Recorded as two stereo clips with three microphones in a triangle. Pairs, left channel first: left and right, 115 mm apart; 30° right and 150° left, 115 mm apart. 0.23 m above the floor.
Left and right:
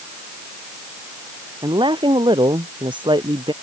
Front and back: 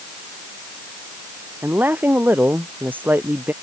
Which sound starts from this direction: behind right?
A woman speaking, at 1.6 s.